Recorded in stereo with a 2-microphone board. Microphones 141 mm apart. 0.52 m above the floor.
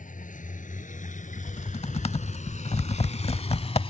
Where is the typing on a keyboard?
45° left (ahead or behind).